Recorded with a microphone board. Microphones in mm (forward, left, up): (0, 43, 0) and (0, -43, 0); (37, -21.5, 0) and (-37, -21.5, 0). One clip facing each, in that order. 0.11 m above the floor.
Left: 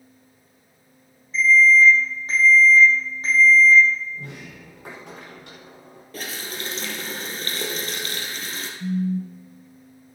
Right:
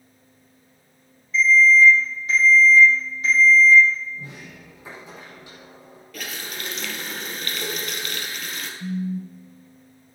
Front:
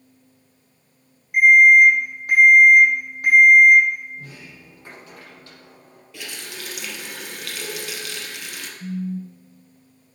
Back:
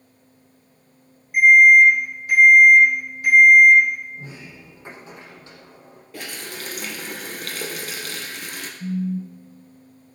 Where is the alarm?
40° left, 5.5 m.